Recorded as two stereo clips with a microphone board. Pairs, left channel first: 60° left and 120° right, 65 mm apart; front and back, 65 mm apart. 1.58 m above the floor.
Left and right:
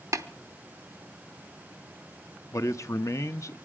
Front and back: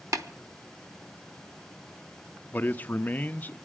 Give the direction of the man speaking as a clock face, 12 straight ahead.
10 o'clock.